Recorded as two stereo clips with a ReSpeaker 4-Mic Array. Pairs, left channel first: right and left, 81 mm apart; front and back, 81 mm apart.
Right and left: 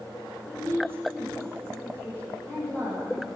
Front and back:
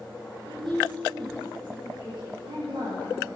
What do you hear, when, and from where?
0.5 s a woman speaking: 160° right, 10 m